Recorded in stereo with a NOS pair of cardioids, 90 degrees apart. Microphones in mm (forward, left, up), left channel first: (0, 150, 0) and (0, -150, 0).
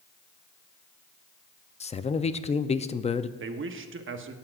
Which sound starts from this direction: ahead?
A man speaking, at 1.8 s.